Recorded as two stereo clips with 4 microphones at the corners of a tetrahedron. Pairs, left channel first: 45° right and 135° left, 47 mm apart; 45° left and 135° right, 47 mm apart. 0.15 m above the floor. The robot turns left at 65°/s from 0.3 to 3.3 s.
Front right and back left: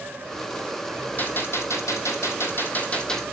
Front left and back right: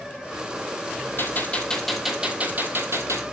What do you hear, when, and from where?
1.2 s a gunshot: 5° left, 2 m; by 3.2 s 130° right, 2 m